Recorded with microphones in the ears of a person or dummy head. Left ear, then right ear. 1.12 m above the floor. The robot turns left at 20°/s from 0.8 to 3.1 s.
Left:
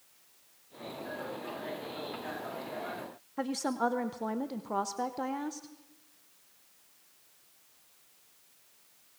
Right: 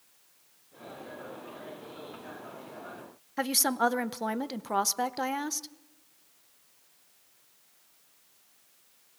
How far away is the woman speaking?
About 0.8 m.